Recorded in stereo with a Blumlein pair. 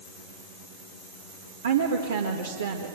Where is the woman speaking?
70° right, 1.8 m.